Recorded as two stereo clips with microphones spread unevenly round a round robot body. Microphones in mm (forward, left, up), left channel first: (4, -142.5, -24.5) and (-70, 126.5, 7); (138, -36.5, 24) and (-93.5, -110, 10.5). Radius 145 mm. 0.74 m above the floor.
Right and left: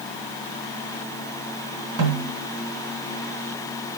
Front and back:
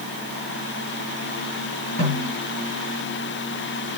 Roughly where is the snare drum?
Left.